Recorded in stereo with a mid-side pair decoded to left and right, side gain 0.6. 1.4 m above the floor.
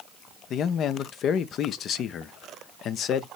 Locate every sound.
0.5 s a man speaking: 50° left, 0.7 m